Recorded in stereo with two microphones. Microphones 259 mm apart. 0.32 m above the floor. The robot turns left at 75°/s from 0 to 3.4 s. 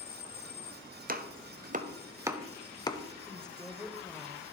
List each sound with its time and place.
1.1 s chopping: 35° right (ahead or behind), 0.6 m; by 3.0 s 20° left (ahead or behind), 0.6 m
3.3 s a woman speaking: 10° left (ahead or behind), 0.9 m; by 4.4 s 5° left (ahead or behind), 0.9 m